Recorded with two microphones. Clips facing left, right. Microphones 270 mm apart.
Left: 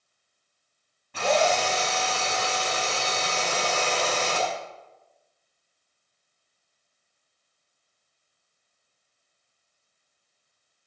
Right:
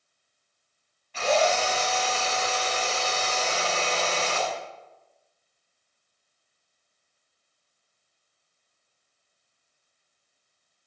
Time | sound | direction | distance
1.1 | a drill | 55° left (ahead or behind) | 6.5 m